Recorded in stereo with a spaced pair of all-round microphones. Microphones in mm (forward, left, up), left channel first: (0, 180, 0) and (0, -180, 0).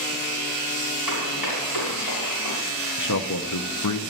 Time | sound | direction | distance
1.1 | running footsteps | 70° left (ahead or behind) | 6.5 m
3.0 | a man speaking | 60° left (ahead or behind) | 0.8 m